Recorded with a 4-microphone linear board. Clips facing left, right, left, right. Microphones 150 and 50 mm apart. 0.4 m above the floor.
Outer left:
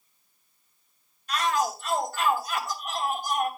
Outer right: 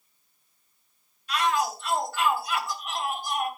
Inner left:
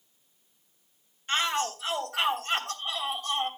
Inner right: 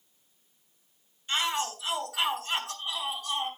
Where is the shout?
45° left (ahead or behind), 2.5 m.